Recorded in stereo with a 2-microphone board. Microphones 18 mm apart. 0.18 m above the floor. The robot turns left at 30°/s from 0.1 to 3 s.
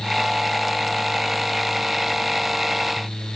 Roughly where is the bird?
I don't hear a bird.